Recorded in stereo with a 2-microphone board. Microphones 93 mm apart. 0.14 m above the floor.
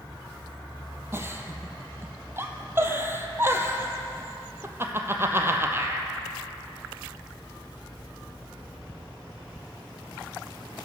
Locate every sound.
1.1 s a giggle: 25° right (ahead or behind), 0.7 m